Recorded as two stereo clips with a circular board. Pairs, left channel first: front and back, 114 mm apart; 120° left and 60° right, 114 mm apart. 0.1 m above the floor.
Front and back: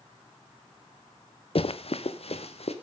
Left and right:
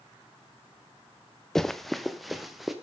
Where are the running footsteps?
35° left, 1.0 m; by 2.7 s 30° left, 2.5 m.